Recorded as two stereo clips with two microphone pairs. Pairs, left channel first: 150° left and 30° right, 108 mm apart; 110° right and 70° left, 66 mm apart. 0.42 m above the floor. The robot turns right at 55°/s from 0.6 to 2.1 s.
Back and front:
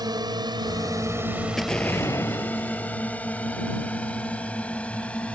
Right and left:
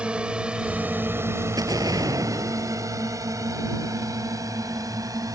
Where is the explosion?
60° left; by 3.1 s 90° left.